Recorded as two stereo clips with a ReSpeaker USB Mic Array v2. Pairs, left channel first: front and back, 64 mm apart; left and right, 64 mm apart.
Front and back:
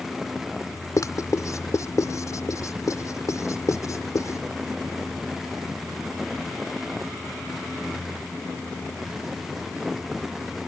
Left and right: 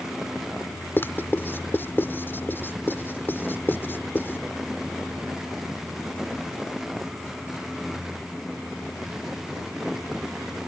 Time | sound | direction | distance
1.0 | writing | 35° left | ?